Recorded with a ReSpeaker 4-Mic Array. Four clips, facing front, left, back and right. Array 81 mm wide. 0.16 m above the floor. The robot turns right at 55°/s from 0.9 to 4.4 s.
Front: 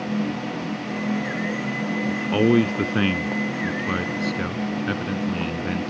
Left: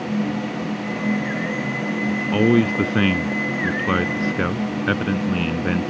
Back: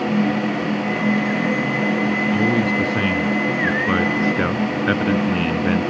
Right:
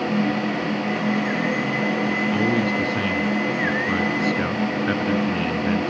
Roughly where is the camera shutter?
No camera shutter in this recording.